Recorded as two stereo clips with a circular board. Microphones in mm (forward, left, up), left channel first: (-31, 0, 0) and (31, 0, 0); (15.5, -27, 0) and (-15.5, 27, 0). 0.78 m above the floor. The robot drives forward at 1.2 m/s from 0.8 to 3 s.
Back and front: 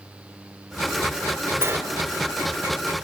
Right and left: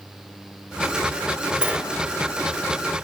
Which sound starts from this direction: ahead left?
A sliding door, at 1.6 s.